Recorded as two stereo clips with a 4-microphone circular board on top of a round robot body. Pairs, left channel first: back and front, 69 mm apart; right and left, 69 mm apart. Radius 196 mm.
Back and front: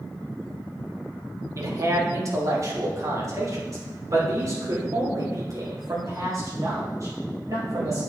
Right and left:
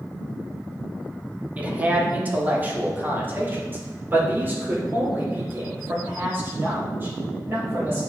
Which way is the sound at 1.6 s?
30° left.